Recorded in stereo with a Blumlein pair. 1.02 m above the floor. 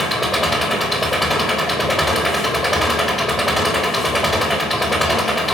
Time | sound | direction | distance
0.0 | an engine running | straight ahead | 3.5 m